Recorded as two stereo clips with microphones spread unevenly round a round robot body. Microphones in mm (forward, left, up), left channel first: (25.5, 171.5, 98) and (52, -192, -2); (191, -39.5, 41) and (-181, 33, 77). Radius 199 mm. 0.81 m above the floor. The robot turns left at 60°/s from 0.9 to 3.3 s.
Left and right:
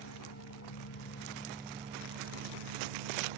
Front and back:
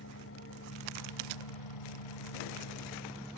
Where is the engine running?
45° left; by 3.4 s 95° right.